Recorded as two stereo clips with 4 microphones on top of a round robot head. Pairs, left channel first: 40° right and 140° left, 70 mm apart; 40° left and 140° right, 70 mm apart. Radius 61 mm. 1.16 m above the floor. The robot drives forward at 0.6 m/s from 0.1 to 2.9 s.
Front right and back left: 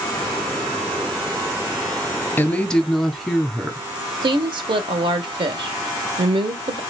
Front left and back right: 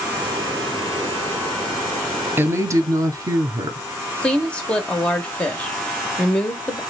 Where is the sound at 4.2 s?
120° left, 0.7 m.